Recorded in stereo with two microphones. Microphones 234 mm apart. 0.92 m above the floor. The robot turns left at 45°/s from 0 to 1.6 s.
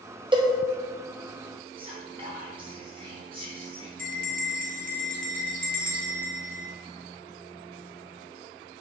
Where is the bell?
35° right (ahead or behind), 0.5 m.